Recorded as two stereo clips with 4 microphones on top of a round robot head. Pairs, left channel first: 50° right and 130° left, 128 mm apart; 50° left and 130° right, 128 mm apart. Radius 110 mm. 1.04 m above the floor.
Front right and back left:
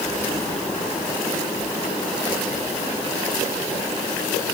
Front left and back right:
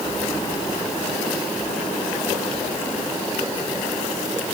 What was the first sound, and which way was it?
Only background noise.